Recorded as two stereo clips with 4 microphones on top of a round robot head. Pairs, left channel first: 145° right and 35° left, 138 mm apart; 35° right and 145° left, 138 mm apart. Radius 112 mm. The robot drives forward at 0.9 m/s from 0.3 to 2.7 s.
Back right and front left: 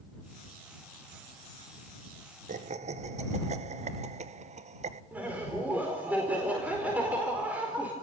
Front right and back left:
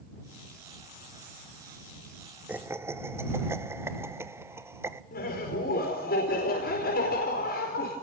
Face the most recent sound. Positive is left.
turn(degrees=-45)